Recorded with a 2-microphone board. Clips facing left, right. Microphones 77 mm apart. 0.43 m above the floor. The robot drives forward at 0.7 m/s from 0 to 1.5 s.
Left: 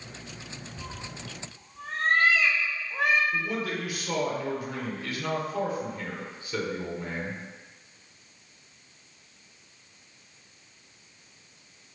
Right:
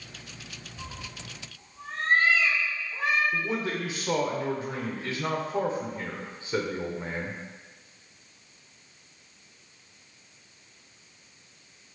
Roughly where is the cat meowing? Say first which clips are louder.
Even; left.